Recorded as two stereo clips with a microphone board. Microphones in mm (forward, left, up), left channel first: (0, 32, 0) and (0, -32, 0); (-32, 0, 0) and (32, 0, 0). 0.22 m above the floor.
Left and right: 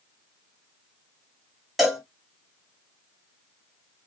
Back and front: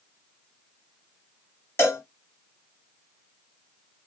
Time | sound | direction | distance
1.8 | a cowbell | 175° right | 1.3 m